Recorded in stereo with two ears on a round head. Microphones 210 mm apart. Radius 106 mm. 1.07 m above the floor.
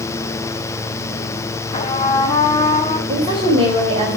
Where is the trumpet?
25° left (ahead or behind), 2.5 m.